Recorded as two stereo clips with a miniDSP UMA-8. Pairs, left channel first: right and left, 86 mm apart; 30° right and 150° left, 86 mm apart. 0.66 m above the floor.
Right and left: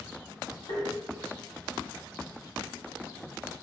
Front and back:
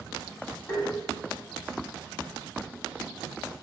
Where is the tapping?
85° right, 1.6 m.